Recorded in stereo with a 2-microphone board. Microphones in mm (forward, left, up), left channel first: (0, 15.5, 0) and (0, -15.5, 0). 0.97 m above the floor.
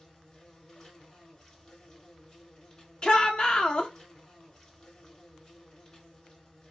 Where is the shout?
30° left (ahead or behind), 0.8 m.